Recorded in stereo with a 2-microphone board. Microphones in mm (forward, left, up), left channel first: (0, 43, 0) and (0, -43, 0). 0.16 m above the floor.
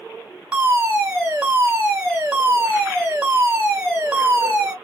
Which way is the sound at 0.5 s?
10° right (ahead or behind).